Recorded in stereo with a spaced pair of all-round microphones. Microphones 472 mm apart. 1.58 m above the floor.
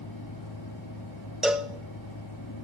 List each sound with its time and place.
0.0 s a fan: 50° left (ahead or behind), 5 m
1.4 s a cowbell: centre (ahead or behind), 0.5 m